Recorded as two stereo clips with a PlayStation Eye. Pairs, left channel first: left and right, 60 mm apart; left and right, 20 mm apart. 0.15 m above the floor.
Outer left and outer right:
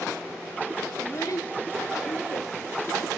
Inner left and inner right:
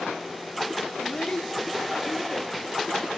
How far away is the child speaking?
About 0.9 m.